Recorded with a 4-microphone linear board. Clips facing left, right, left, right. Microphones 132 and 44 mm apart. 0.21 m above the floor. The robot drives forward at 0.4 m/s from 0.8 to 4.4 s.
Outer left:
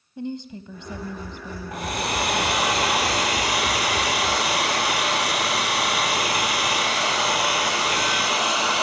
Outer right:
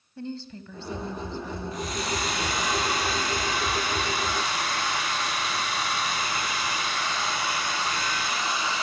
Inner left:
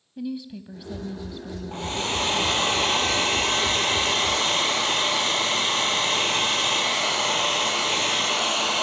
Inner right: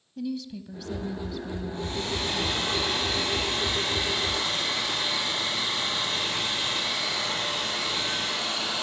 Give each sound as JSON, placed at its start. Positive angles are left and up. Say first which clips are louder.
{"t": 0.2, "sound": "a woman speaking", "louder": "outer left 4 dB, inner left 1 dB", "side_deg": 15, "distance_m": 1.1}
{"t": 1.7, "sound": "a hair dryer", "louder": "outer left 5 dB, inner left 6 dB", "side_deg": 65, "distance_m": 2.0}